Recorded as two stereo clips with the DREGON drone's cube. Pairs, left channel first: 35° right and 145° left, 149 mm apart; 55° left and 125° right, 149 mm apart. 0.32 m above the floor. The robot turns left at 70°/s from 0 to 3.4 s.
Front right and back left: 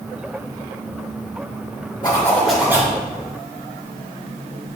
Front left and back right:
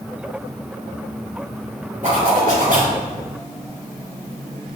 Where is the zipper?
90° right, 4.5 m; by 3.0 s 155° right, 4.5 m.